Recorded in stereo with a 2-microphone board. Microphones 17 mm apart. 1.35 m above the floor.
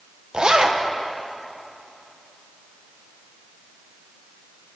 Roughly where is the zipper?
Right.